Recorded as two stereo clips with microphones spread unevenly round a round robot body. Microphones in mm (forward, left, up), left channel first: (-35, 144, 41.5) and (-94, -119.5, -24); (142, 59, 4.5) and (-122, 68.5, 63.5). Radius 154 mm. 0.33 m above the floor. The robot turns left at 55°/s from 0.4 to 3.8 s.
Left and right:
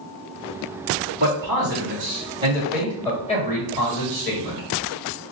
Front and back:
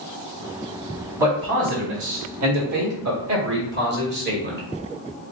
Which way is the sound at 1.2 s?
90° right.